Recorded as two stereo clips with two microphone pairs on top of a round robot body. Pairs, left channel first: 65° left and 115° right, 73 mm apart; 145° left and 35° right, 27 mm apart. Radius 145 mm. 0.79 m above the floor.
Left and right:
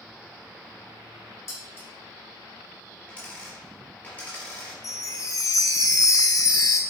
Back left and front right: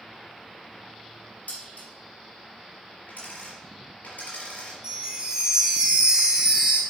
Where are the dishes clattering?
120° left, 3.5 m.